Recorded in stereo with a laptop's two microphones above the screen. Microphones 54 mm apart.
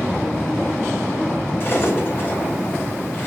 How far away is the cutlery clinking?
About 2.5 m.